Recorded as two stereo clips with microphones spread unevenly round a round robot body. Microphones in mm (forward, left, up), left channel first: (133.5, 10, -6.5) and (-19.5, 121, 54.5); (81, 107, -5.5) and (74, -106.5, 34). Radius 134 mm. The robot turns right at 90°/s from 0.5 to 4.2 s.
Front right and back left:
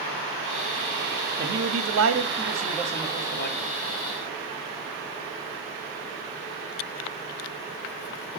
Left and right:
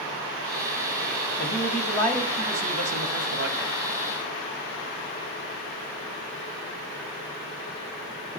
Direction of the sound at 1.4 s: 110° left.